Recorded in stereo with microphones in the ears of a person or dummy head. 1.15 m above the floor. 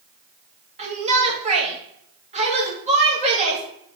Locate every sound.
0.8 s a shout: 30° right (ahead or behind), 1.7 m